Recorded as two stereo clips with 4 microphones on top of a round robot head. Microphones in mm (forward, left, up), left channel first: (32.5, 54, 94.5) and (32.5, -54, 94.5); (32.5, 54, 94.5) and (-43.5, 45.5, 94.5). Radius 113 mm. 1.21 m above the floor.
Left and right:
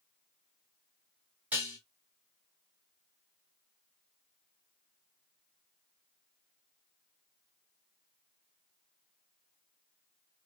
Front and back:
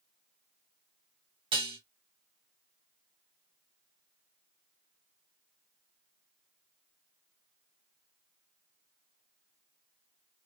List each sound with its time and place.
1.5 s dishes clattering: 170° right, 1.2 m